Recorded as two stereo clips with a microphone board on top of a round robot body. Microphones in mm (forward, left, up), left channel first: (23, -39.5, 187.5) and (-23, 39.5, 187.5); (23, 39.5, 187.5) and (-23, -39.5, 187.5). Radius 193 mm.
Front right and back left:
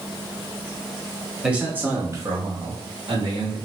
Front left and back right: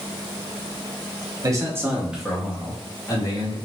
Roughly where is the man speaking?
Behind.